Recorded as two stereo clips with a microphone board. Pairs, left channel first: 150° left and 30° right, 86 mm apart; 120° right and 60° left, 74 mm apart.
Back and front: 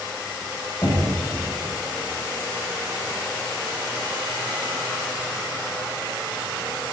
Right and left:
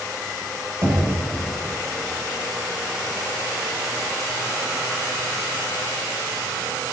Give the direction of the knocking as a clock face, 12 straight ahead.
9 o'clock.